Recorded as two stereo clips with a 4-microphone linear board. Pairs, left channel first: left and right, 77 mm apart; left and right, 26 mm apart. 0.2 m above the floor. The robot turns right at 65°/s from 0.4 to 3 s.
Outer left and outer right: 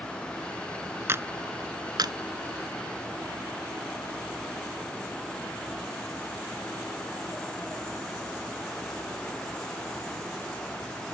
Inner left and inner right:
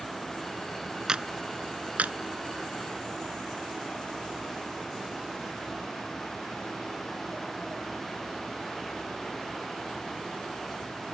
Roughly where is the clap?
Right.